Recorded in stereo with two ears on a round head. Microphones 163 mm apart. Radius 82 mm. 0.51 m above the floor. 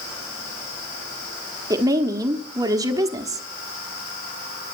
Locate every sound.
1.7 s a woman speaking: 20° right (ahead or behind), 1.1 m